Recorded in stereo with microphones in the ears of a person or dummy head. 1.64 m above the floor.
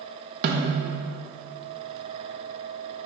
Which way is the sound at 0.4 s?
45° right (ahead or behind).